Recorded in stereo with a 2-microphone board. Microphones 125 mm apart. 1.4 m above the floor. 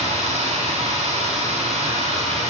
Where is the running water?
60° right (ahead or behind), 8.5 m.